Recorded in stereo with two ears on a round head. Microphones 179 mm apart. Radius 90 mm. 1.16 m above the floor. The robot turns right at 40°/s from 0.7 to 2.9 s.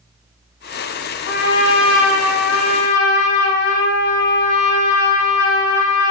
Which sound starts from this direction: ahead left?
A trumpet, at 1.3 s.